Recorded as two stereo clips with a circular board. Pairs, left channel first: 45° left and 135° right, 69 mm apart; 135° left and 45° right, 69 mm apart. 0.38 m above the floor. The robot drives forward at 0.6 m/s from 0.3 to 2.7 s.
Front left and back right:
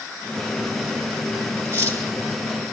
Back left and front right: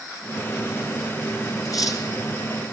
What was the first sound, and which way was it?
Cutlery clinking, 170° left.